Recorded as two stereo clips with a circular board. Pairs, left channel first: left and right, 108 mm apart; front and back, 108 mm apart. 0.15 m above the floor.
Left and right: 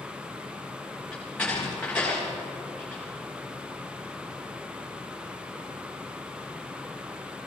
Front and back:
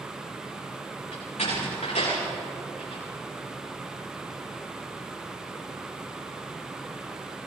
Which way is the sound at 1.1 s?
10° left.